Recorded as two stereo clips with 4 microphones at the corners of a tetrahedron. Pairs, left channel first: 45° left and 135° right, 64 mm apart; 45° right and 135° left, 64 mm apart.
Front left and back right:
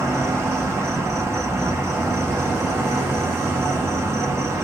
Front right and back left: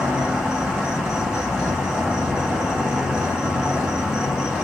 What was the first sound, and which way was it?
An insect, 155° right.